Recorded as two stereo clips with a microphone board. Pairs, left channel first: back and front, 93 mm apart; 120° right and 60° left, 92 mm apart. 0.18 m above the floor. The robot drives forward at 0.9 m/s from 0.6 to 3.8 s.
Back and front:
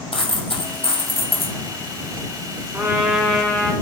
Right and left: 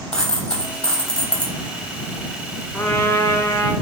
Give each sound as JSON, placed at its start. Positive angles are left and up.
{"t": 0.1, "sound": "a dropped coin", "azimuth_deg": 160, "distance_m": 2.5}
{"t": 2.7, "sound": "a trumpet", "azimuth_deg": -55, "distance_m": 1.3}